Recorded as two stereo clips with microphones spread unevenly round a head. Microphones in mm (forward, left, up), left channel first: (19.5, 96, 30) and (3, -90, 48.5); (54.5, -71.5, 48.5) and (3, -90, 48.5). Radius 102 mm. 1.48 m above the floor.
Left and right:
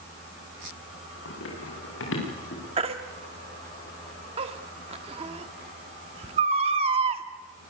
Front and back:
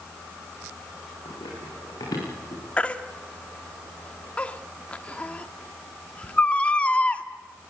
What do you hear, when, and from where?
1.2 s running footsteps: 65° left, 9.5 m; by 2.6 s 55° left, 8.5 m
2.8 s a baby crying: 45° right, 1.4 m